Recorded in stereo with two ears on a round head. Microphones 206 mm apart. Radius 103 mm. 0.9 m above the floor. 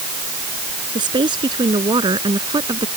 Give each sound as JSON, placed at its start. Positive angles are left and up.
{"t": 0.9, "sound": "a woman speaking", "side_deg": -20}